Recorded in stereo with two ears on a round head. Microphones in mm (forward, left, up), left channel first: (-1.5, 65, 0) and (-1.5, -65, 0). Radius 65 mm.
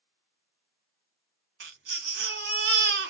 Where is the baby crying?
85° right, 1.6 m.